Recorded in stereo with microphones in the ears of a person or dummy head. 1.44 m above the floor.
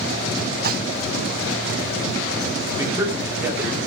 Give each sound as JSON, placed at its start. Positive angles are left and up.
{"t": 0.6, "sound": "dishes clattering", "side_deg": -55, "distance_m": 1.2}
{"t": 2.8, "sound": "a man speaking", "side_deg": -15, "distance_m": 3.5}